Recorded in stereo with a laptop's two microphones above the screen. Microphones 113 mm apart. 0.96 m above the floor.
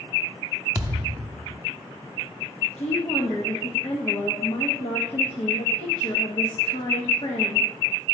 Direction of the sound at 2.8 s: 60° left (ahead or behind).